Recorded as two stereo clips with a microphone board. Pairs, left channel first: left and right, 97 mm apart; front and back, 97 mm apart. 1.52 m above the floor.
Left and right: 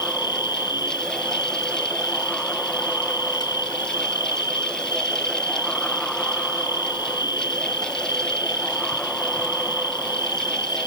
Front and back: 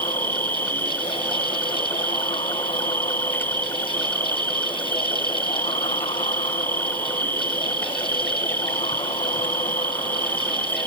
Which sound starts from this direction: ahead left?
An insect, at 0.0 s.